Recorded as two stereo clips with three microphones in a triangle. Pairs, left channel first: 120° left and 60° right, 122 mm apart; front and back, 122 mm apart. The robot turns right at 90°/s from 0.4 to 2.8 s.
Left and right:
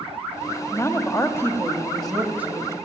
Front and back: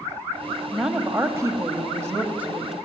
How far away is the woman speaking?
About 1.3 m.